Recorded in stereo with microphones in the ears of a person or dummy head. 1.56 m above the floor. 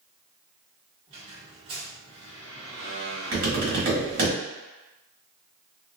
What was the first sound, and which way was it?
A squeak, 35° right (ahead or behind).